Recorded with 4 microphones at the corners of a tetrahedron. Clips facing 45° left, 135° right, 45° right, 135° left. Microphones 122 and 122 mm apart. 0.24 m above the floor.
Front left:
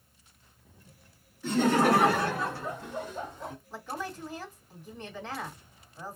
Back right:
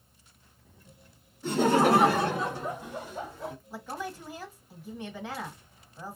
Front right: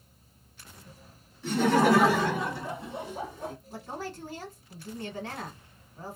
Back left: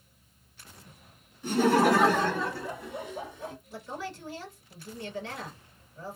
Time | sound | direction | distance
1.4 | laughter | 160° right | 1.3 m
3.7 | a woman speaking | 55° right | 1.7 m